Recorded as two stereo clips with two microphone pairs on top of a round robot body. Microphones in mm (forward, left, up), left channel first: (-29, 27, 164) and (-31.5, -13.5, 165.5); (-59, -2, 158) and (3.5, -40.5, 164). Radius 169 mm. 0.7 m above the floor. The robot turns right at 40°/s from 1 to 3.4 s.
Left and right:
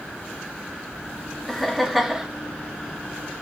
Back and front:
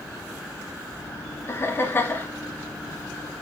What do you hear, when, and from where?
1.5 s laughter: 160° left, 0.9 m; by 2.3 s 170° right, 0.9 m